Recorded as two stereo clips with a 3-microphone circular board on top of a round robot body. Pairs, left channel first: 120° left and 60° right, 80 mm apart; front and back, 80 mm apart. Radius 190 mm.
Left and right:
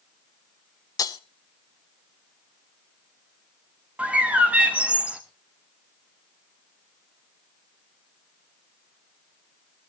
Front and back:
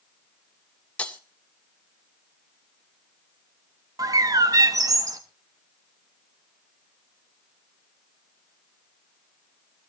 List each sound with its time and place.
1.0 s breaking glass: 75° left, 0.6 m
4.0 s a bird: 135° right, 0.6 m